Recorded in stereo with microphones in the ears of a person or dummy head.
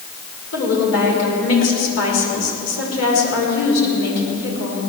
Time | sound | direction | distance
0.5 | a woman speaking | 90° left | 5 m